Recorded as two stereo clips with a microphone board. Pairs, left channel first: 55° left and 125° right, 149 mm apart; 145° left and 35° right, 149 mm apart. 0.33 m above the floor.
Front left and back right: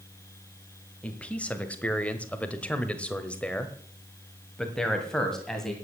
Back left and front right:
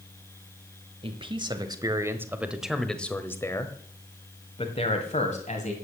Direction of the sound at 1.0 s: 20° right.